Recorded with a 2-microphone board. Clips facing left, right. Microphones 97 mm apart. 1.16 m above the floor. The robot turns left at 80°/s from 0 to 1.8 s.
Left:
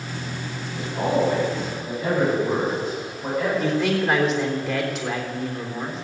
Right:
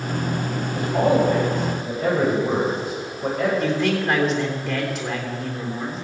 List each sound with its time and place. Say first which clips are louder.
0.8 s a man speaking: right 4 dB; 45° right, 6.5 m; by 3.5 s 130° right, 6.5 m
3.6 s a man speaking: even; centre (ahead or behind), 3.5 m